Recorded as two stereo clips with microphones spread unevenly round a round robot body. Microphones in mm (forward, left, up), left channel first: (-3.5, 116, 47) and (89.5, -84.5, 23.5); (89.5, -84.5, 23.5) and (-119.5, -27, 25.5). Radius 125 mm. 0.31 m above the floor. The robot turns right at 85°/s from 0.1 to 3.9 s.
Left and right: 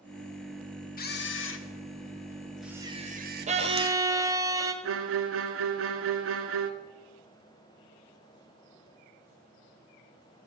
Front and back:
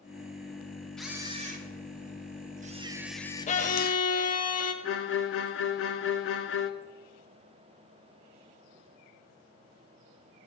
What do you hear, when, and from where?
1.0 s a camera shutter: 70° left, 0.9 m; by 4.0 s 40° right, 0.9 m
3.5 s a violin: 45° right, 1.0 m; by 4.7 s 5° right, 1.0 m
4.8 s a violin: 40° right, 0.9 m